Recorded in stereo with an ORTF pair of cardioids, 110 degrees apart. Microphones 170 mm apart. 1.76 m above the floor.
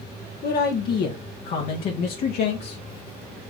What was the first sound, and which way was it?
A man speaking, 55° left.